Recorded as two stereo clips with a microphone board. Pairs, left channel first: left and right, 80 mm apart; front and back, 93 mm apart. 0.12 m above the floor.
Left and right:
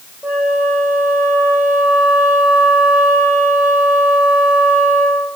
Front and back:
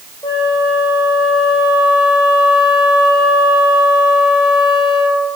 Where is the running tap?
I don't hear a running tap.